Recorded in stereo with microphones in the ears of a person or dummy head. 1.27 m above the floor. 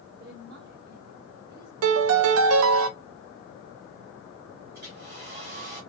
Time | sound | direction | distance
0.2 | a woman speaking | 50° right (ahead or behind) | 1.3 m
1.8 | a piano | 75° right (ahead or behind) | 0.6 m
4.7 | a hair dryer | 50° right (ahead or behind) | 2.5 m